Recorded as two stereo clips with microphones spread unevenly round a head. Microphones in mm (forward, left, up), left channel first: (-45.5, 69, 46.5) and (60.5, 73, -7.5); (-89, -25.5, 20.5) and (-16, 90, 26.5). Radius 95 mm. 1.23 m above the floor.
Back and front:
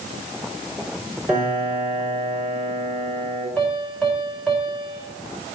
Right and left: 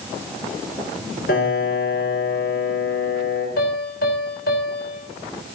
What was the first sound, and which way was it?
A piano, 85° right.